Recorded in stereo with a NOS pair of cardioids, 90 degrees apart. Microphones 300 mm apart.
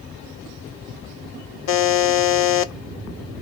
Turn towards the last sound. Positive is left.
turn(degrees=55)